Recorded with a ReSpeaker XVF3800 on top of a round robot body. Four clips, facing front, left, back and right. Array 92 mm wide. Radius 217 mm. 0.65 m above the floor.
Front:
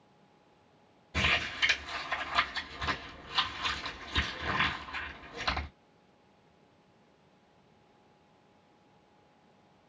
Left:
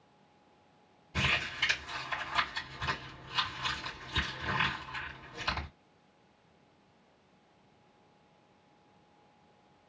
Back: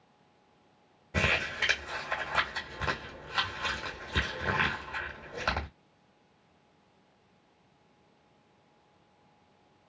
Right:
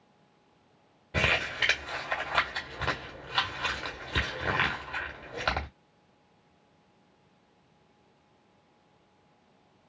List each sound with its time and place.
1.1 s crumpling: 115° right, 1.8 m